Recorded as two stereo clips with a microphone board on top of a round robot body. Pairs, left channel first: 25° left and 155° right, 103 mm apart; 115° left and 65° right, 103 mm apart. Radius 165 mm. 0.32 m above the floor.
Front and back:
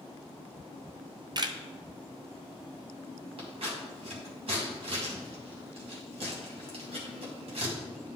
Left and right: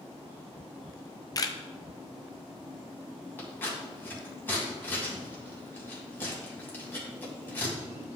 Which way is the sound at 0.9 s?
160° left.